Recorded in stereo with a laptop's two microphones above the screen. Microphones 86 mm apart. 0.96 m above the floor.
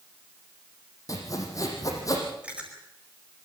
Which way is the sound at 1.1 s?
40° left (ahead or behind).